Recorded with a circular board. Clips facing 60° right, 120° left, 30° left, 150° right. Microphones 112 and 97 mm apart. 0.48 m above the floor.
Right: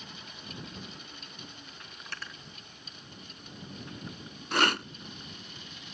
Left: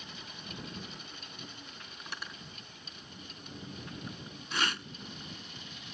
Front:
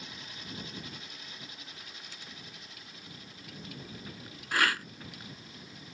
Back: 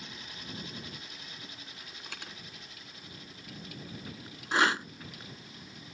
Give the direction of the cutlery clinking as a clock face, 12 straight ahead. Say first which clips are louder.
Even, back 4 dB; 5 o'clock.